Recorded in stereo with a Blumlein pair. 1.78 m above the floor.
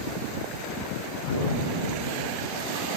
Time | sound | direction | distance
1.2 | an explosion | 50° left | 7 m